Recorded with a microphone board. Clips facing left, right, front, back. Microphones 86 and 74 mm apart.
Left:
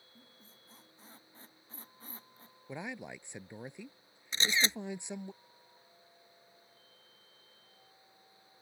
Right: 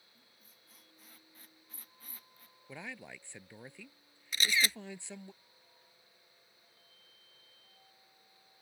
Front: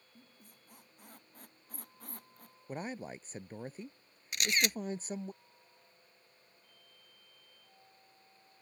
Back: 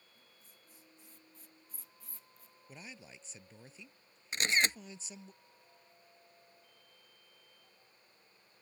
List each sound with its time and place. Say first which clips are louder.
0.1 s a squeak: left 9 dB, front 4 dB; 30° left
2.7 s a man speaking: left 4 dB, front 12 dB; 25° left
4.3 s a camera shutter: even, back 2 dB; 140° left